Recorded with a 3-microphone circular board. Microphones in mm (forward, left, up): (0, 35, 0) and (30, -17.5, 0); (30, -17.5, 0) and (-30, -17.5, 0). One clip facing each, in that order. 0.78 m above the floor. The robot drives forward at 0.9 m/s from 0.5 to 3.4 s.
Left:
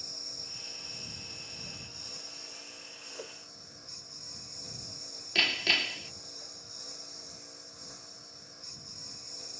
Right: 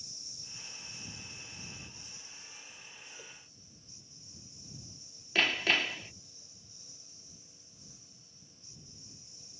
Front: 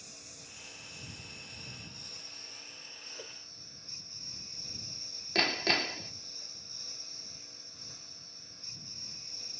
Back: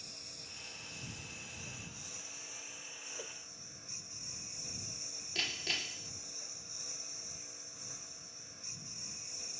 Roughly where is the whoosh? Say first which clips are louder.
Left 11 dB, even; left.